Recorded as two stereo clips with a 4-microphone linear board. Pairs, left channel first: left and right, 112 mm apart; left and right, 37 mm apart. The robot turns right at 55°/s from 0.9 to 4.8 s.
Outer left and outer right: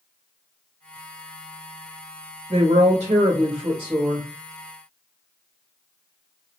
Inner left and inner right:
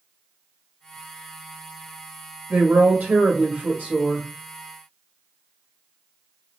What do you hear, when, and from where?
2.5 s a woman speaking: 115° right, 0.9 m; by 4.3 s 20° right, 0.9 m